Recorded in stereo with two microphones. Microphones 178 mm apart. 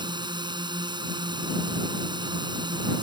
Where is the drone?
25° right (ahead or behind).